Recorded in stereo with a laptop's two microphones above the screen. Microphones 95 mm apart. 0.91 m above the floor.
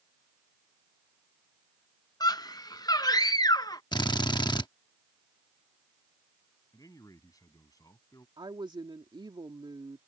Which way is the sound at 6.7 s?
40° left (ahead or behind).